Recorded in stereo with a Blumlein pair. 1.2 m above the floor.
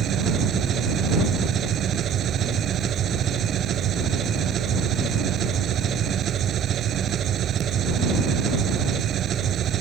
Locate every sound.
0.0 s an engine running: 30° right